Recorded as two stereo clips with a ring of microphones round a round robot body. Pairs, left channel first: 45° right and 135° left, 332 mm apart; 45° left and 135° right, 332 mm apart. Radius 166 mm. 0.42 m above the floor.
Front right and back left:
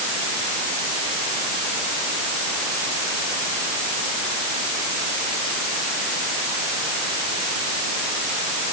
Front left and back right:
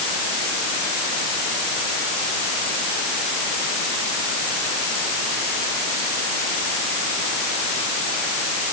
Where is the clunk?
No clunk in this recording.